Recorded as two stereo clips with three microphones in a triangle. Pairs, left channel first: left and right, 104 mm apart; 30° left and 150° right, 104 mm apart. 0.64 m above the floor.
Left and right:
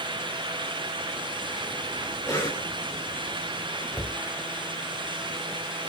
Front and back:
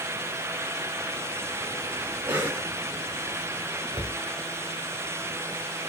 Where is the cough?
140° left, 4 m.